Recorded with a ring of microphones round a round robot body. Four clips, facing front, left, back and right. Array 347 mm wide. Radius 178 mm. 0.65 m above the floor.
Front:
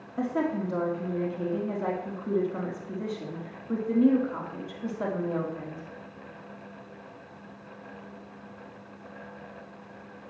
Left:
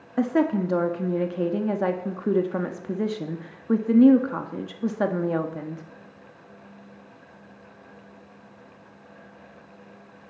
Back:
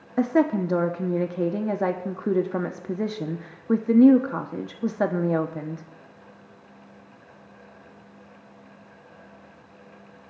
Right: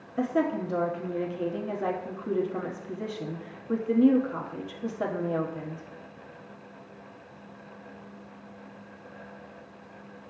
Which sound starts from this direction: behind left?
A woman speaking, at 0.2 s.